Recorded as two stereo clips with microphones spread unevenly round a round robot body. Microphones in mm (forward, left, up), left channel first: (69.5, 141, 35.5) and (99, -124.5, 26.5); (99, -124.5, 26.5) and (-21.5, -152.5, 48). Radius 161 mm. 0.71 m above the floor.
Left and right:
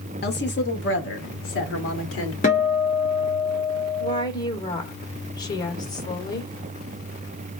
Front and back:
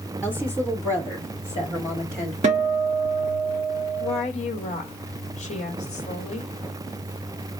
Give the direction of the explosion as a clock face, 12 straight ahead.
I don't hear an explosion.